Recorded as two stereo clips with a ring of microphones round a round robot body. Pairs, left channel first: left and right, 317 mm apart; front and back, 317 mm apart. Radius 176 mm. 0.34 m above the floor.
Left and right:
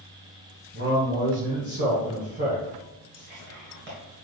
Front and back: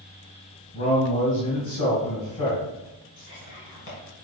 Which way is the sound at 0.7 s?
30° right.